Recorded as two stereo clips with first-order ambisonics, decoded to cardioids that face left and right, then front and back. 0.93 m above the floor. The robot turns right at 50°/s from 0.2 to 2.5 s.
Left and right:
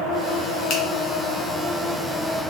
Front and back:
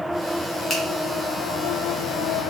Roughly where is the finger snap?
Ahead left.